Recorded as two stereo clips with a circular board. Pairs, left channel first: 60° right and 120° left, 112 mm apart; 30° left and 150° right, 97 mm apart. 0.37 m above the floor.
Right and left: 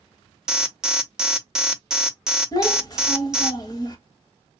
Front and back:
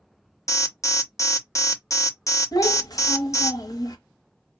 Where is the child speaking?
15° right, 0.9 m.